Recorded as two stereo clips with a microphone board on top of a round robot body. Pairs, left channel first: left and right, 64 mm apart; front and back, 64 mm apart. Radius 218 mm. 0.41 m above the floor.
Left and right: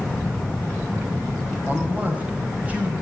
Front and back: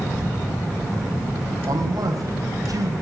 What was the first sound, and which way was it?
A man speaking, 160° right.